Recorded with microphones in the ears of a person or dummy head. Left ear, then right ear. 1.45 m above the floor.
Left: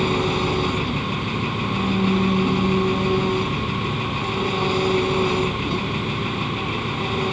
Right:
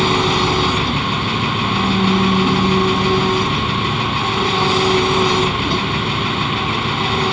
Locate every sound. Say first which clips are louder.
0.0 s an engine running: right 6 dB; 20° right (ahead or behind)